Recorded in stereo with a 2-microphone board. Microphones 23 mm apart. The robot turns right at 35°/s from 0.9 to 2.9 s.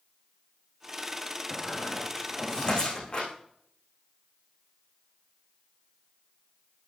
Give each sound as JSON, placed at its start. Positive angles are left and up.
{"t": 1.5, "sound": "a squeak", "side_deg": -10, "distance_m": 9.5}